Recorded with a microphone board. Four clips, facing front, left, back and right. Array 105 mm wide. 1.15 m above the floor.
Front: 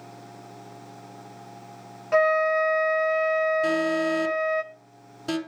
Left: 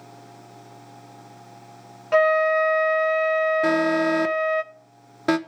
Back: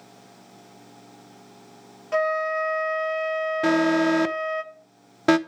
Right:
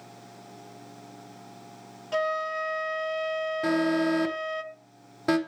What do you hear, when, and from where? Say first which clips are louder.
2.1 s a flute: left 10 dB, front 3 dB; 75° left, 0.8 m
3.6 s an alarm: left 4 dB, back 4 dB; 160° left, 0.8 m